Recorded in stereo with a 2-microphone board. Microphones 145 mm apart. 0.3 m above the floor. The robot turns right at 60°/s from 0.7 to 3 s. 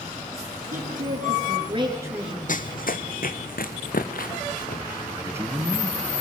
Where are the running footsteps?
70° left (ahead or behind), 1.0 m; by 5.8 s 80° left, 3.5 m.